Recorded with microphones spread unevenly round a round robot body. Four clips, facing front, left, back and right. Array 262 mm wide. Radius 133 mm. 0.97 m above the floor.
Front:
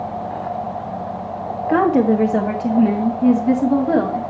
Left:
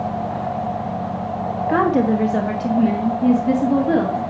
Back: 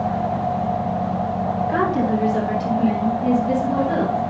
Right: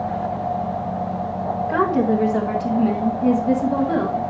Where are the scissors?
I don't hear scissors.